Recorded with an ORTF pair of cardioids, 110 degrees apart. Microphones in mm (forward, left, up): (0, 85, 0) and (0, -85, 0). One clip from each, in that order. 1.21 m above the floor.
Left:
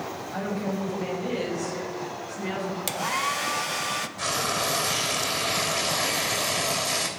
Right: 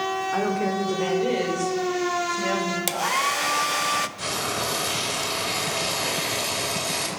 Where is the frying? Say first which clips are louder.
Left 1 dB; 10° left, 3 m.